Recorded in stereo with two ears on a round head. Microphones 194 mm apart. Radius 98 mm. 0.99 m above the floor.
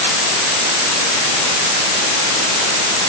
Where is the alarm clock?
I don't hear an alarm clock.